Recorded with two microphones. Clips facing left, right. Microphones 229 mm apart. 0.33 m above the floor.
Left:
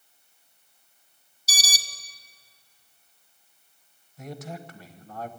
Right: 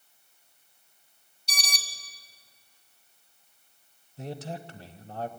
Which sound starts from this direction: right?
A man speaking, at 4.2 s.